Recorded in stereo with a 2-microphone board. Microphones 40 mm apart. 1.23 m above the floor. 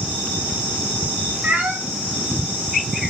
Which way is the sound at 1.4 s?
45° right (ahead or behind).